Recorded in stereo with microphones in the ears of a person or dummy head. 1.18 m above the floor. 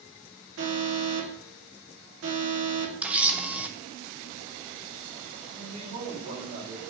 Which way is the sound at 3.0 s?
5° right (ahead or behind).